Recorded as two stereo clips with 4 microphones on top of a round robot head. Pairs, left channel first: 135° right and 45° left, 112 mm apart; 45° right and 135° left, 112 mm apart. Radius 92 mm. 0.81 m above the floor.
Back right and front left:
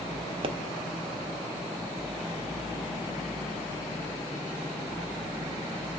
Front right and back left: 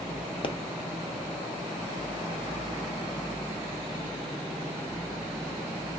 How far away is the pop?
About 0.7 m.